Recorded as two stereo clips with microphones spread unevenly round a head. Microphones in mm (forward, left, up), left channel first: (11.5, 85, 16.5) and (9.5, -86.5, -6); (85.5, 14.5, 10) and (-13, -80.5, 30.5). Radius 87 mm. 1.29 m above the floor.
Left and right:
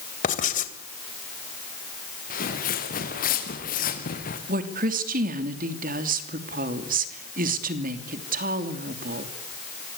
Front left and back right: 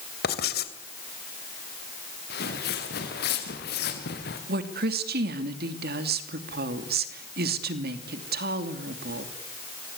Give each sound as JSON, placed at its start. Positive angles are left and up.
{"t": 0.2, "sound": "writing", "azimuth_deg": 45, "distance_m": 3.0}
{"t": 2.3, "sound": "footsteps", "azimuth_deg": 50, "distance_m": 5.5}
{"t": 4.5, "sound": "a woman speaking", "azimuth_deg": -135, "distance_m": 3.0}